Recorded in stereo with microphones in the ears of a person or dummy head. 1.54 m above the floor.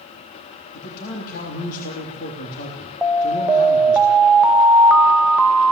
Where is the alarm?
10° right (ahead or behind), 1.0 m.